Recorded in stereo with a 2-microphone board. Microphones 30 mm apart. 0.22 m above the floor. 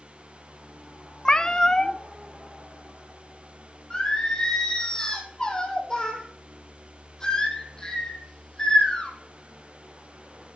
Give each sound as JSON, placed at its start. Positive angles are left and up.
{"t": 1.2, "sound": "a cat meowing", "side_deg": 25, "distance_m": 0.6}
{"t": 3.9, "sound": "singing", "side_deg": 25, "distance_m": 3.0}